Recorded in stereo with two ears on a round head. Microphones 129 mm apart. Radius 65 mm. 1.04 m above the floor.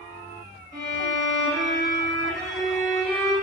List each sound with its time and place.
0.7 s a violin: 20° left (ahead or behind), 1.2 m